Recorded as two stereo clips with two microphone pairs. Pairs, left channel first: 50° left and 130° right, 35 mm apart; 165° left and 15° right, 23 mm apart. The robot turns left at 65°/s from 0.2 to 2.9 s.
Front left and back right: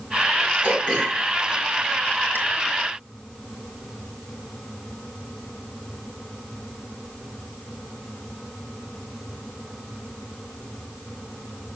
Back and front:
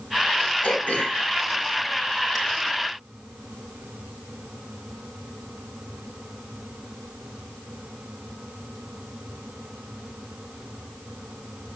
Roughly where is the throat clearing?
Behind.